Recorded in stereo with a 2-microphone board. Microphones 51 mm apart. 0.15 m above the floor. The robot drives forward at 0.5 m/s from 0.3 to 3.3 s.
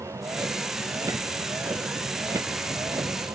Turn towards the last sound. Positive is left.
turn(degrees=-85)